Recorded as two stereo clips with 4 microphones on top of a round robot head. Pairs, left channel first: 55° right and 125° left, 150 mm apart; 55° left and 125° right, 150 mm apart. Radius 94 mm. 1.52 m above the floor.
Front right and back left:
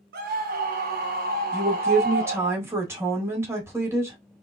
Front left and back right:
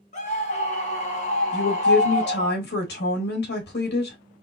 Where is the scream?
100° left, 2.5 m.